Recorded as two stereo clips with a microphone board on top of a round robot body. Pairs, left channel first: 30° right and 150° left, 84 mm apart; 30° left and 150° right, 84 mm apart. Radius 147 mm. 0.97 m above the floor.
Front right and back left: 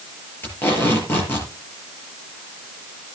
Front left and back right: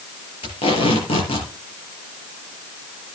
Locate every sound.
0.4 s tape being pulled: 35° left, 6 m